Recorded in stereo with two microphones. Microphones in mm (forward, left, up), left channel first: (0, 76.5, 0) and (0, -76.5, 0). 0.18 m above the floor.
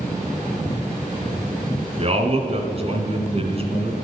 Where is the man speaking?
45° right (ahead or behind), 2 m.